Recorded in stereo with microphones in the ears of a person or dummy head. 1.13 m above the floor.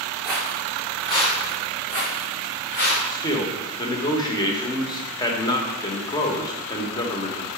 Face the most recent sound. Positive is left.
turn(degrees=20)  # may be behind; listen again after turning